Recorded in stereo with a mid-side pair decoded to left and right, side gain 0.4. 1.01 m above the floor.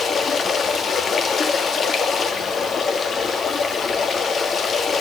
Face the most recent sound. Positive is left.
turn(degrees=55)